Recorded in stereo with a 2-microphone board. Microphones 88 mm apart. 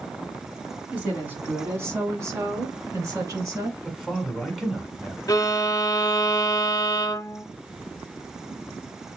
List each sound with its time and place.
0.9 s a woman speaking: 15° right (ahead or behind), 1.4 m; by 3.7 s 40° right (ahead or behind), 2 m
3.8 s a man speaking: centre (ahead or behind), 1.7 m
5.3 s a violin: 40° left (ahead or behind), 0.6 m